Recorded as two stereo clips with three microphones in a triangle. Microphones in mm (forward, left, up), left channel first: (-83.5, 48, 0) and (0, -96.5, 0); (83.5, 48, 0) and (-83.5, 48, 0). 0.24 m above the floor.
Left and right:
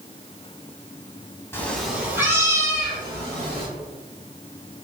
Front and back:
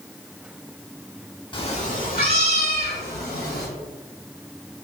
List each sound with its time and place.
1.5 s a cat meowing: 50° left, 0.6 m; by 3.7 s straight ahead, 1.9 m